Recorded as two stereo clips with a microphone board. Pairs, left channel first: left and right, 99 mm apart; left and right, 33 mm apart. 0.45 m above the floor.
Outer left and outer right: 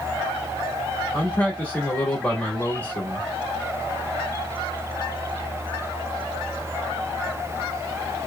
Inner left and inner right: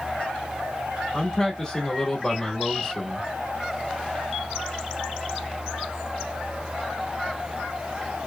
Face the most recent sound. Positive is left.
turn(degrees=15)  # may be behind; listen again after turning